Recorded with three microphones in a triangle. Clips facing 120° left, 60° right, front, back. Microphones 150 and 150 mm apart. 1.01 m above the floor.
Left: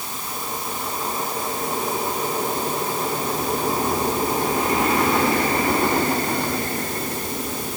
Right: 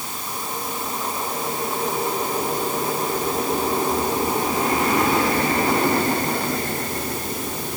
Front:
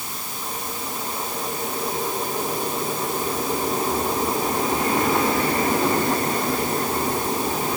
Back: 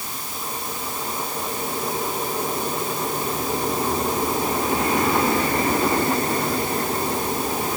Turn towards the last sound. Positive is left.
No sound to turn to.